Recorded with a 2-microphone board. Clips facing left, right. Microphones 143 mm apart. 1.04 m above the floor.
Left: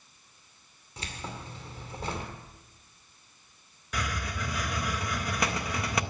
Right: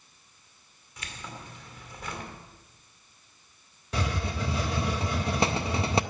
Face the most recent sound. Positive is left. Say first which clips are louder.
# right 4 dB
turn(degrees=-25)  # may be behind; listen again after turning